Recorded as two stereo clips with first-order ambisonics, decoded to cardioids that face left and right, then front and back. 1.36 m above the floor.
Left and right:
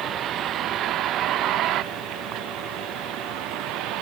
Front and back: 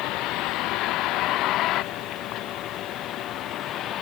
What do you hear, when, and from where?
0.0 s a vehicle: 35° right; by 4.0 s 50° right